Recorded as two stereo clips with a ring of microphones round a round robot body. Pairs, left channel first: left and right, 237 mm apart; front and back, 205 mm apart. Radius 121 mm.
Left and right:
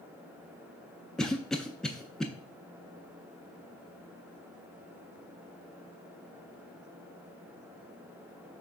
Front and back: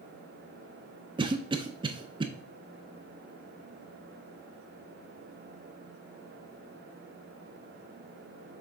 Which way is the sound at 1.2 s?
175° left.